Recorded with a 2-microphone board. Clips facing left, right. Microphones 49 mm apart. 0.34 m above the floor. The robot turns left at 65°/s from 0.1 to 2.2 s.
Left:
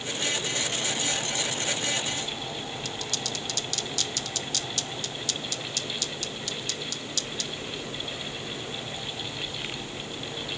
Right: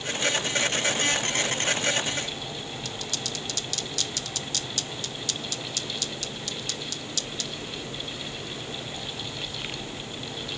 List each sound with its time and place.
Only background noise.